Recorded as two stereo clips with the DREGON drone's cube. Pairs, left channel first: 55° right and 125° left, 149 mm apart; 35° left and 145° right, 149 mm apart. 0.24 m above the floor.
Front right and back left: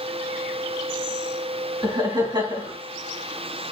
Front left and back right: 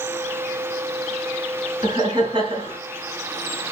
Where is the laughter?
175° left, 2.5 m.